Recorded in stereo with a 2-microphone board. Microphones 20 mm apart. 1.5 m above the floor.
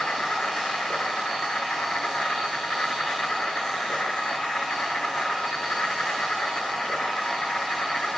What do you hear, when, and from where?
0.0 s an insect: 75° left (ahead or behind), 6 m